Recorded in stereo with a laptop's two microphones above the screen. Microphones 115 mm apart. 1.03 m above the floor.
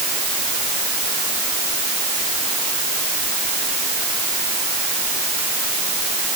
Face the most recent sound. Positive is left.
No sound to turn to.